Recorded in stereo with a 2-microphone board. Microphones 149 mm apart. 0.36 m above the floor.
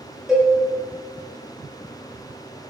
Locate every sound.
0.3 s a cowbell: centre (ahead or behind), 0.6 m